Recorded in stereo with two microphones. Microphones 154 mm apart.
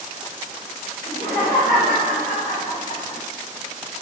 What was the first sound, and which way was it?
Laughter, 75° left (ahead or behind).